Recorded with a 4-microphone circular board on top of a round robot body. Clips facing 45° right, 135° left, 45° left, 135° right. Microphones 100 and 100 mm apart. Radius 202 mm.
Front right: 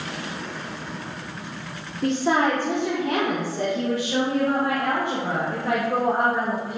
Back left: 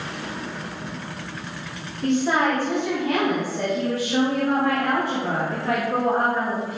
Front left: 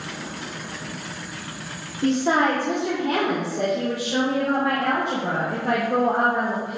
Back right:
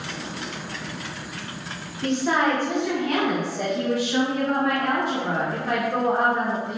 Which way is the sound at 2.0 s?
10° right.